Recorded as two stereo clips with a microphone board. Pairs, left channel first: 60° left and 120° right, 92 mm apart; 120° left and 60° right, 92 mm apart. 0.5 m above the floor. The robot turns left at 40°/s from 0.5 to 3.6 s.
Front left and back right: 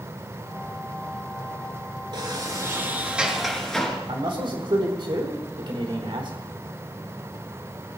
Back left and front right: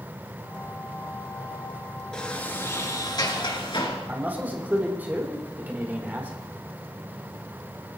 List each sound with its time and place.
2.1 s a sliding door: 155° right, 3.5 m; by 4.0 s 145° left, 3.5 m
4.1 s a man speaking: 130° right, 3 m